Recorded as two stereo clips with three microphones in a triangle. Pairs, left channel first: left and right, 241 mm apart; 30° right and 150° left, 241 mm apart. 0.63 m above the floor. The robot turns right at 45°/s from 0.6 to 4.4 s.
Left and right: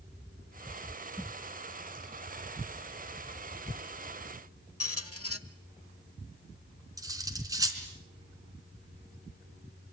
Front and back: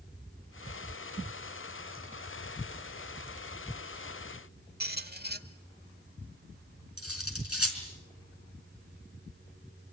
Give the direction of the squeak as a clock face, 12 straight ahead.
9 o'clock.